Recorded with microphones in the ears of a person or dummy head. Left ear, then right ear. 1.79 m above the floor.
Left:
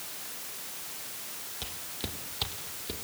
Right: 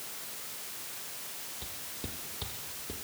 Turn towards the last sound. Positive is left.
turn(degrees=30)  # may be behind; listen again after turning